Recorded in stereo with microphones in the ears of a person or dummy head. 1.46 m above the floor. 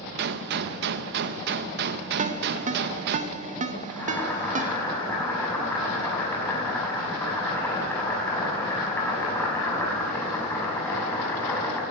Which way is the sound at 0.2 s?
60° right (ahead or behind).